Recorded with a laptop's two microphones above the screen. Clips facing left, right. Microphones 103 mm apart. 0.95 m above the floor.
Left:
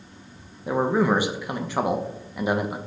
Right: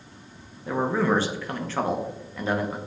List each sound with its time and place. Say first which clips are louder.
0.7 s a man speaking: left 2 dB; 15° left (ahead or behind), 0.5 m